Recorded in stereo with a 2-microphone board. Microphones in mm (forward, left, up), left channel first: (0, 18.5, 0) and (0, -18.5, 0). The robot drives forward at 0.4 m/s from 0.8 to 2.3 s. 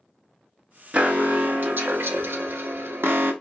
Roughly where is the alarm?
Right.